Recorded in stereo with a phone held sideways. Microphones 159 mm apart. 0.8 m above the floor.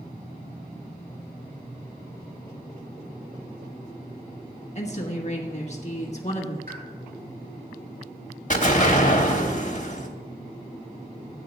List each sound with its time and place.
4.8 s a woman speaking: 45° left (ahead or behind), 1.4 m
6.7 s a pop: 75° right (ahead or behind), 4 m
8.5 s an explosion: 55° left (ahead or behind), 1.2 m